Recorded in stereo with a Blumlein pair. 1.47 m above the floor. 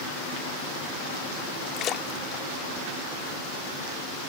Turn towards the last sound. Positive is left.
turn(degrees=30)